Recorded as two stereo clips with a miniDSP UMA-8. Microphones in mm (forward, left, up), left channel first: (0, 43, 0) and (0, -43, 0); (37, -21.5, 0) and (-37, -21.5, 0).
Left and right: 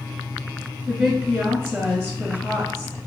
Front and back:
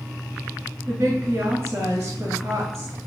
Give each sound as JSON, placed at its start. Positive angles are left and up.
{"t": 0.9, "sound": "a woman speaking", "azimuth_deg": -145, "distance_m": 1.7}